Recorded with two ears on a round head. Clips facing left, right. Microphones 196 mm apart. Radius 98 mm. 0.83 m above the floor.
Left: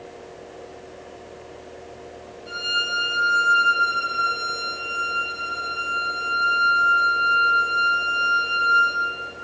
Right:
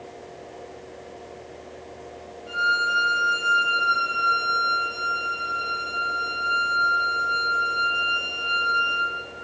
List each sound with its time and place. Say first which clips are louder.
2.5 s a violin: right 5 dB; 30° left (ahead or behind), 6.5 m